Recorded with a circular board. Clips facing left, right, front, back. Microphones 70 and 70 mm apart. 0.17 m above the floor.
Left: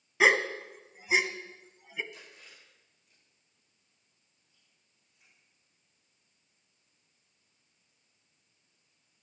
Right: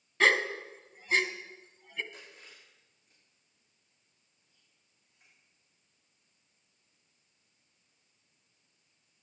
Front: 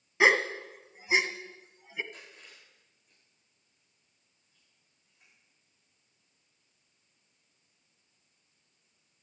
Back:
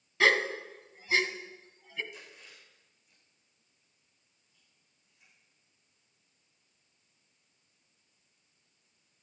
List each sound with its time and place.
0.2 s a gasp: 30° left, 0.8 m
2.1 s chewing: 50° right, 8 m